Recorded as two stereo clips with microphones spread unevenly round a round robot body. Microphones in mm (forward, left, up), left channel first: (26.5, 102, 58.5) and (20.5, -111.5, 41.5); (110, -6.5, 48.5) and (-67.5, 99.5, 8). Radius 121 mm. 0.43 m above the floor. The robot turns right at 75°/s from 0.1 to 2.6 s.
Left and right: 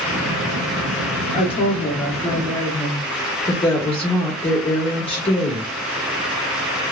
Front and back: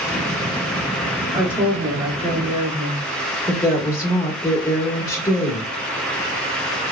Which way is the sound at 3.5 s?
55° left.